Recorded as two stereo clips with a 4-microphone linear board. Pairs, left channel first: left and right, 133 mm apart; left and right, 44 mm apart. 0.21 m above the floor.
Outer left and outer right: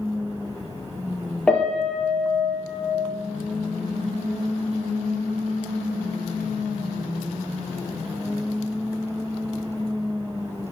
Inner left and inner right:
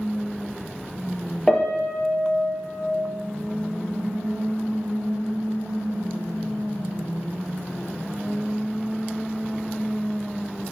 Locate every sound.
1.5 s a piano: 5° left (ahead or behind), 3 m